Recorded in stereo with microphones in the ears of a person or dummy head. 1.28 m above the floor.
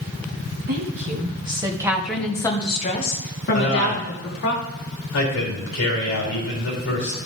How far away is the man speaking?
About 2.5 m.